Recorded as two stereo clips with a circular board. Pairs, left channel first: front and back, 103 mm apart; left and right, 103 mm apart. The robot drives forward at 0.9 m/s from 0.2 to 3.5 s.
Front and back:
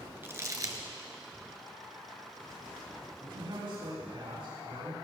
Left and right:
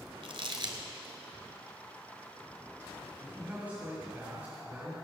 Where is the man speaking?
160° right, 4.5 m; by 4.9 s 165° right, 4.5 m.